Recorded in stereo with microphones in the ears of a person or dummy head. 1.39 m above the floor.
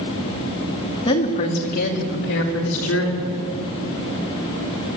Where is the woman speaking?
35° left (ahead or behind), 2.5 m; by 3.3 s 80° left, 4 m.